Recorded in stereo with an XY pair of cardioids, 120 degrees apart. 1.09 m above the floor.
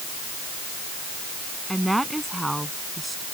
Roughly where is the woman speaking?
Ahead.